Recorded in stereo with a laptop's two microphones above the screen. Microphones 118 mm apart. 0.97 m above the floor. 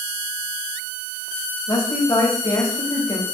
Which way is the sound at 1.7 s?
30° left (ahead or behind).